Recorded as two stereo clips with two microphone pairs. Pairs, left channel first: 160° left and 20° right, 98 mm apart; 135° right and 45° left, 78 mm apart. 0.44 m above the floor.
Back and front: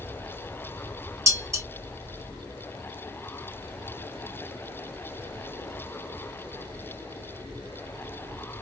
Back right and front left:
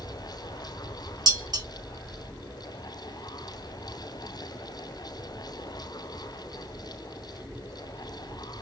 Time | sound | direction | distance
1.3 | dishes clattering | 35° left | 1.3 m